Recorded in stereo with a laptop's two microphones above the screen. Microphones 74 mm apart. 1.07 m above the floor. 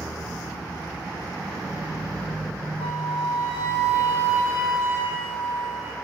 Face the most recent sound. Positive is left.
turn(degrees=-35)  # may be behind; listen again after turning